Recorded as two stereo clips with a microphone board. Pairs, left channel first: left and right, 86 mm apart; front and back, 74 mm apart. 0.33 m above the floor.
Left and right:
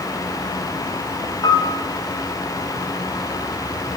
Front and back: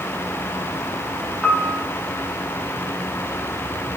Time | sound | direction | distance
1.4 | a piano | 85° left | 1.7 m